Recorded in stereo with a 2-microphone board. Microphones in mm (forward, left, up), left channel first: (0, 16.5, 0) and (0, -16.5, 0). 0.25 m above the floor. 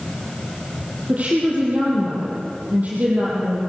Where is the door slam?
No door slam in this recording.